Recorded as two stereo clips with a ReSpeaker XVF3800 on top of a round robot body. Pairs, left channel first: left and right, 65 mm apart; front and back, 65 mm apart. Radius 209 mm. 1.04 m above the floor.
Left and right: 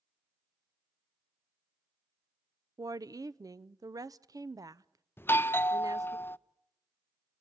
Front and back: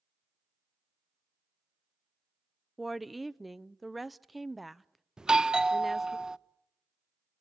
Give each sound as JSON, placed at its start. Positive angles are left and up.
{"t": 2.8, "sound": "a woman speaking", "azimuth_deg": -90, "distance_m": 0.8}
{"t": 5.2, "sound": "a doorbell", "azimuth_deg": 110, "distance_m": 0.7}